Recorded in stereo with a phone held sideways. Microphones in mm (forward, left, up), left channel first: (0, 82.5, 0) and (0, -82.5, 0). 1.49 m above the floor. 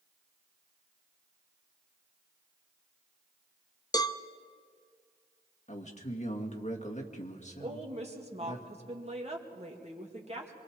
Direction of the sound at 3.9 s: 25° left (ahead or behind).